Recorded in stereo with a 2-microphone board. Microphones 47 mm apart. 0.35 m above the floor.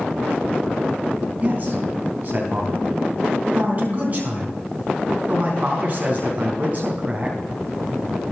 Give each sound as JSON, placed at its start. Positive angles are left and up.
{"t": 1.4, "sound": "a man speaking", "side_deg": -40, "distance_m": 3.5}